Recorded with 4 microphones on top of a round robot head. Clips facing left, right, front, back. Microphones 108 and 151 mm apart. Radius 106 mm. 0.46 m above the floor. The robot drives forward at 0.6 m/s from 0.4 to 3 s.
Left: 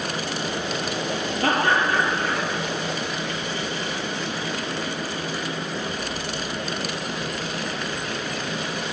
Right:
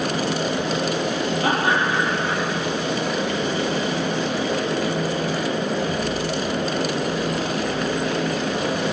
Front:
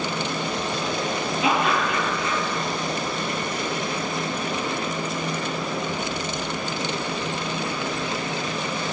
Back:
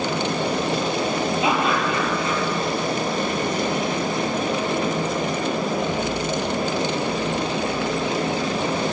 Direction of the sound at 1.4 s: 115° left.